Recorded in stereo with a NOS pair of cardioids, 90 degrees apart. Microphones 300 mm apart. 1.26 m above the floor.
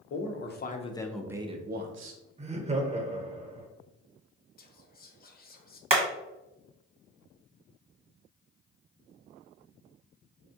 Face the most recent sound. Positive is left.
turn(degrees=-20)